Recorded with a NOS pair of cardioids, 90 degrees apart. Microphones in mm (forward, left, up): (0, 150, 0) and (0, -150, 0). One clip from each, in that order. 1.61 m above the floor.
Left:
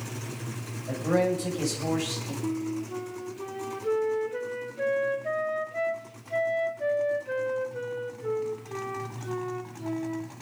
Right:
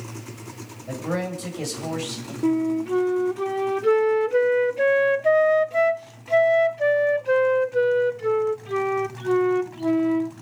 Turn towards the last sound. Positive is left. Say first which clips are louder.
# right 12 dB
turn(degrees=-55)